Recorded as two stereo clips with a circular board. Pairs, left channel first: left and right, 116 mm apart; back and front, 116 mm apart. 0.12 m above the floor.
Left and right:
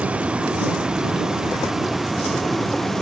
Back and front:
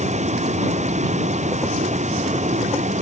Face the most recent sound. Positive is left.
turn(degrees=0)